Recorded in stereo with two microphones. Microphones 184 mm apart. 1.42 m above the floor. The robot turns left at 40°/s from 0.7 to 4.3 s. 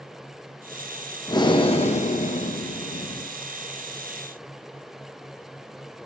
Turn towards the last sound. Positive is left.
turn(degrees=35)